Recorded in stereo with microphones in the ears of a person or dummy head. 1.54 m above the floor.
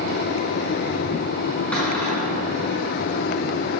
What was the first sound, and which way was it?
A cupboard door, 5° left (ahead or behind).